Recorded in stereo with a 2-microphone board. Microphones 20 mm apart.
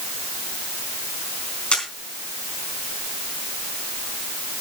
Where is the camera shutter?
60° left (ahead or behind), 3.5 m.